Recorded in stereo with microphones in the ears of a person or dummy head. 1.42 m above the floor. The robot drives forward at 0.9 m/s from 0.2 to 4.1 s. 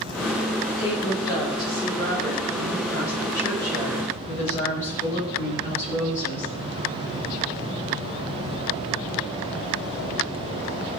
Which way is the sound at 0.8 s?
25° left (ahead or behind).